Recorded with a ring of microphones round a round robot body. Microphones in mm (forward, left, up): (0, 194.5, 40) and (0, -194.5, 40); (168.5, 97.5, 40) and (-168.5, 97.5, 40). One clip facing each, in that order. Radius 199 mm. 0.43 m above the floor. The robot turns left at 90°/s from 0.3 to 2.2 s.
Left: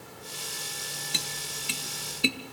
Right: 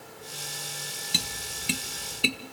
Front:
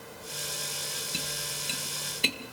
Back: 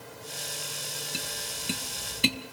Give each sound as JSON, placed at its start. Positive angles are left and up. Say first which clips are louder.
{"t": 1.1, "sound": "tapping", "louder": "right 5 dB, even", "azimuth_deg": -80, "distance_m": 0.6}